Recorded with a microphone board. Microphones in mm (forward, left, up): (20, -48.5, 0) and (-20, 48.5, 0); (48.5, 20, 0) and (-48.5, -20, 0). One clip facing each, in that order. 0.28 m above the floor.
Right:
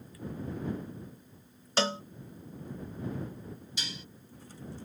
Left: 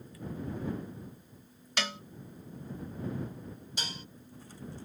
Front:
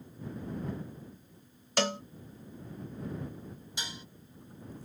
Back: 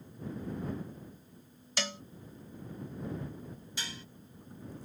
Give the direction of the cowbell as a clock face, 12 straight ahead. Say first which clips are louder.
Right 7 dB, front 8 dB; 12 o'clock.